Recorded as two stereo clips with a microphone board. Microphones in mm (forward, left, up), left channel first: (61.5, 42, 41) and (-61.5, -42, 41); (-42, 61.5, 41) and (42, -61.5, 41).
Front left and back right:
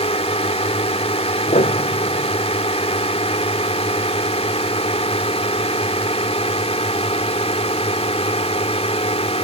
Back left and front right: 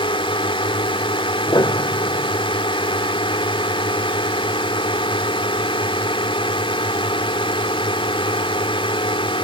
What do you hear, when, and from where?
0.0 s a drone: 75° left
1.5 s a piano: 60° left